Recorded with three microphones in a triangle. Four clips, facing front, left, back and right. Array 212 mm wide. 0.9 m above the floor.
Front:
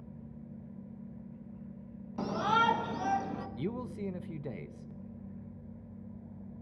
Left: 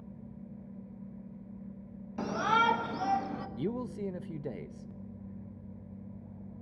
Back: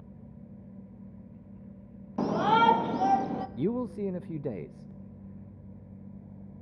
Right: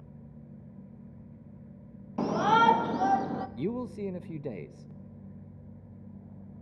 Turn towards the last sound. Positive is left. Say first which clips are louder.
# left 1 dB, back 9 dB
turn(degrees=-170)